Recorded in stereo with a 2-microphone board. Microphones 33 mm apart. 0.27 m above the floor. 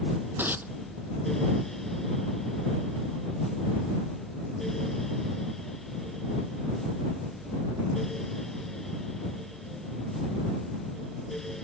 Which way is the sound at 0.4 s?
70° right (ahead or behind).